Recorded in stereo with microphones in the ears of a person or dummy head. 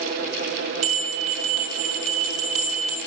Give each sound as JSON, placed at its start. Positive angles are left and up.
{"t": 0.8, "sound": "a bell", "side_deg": -40, "distance_m": 2.0}